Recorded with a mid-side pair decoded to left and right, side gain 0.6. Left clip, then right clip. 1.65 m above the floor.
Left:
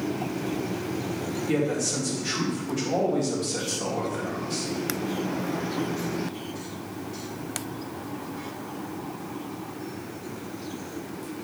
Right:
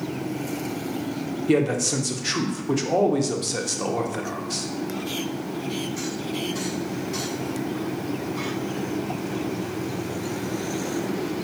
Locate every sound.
1.5 s a man speaking: 40° right, 1.1 m